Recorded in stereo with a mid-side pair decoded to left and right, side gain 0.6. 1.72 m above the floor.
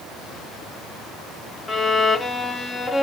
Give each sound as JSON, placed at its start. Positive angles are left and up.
{"t": 1.7, "sound": "a violin", "azimuth_deg": 25, "distance_m": 0.7}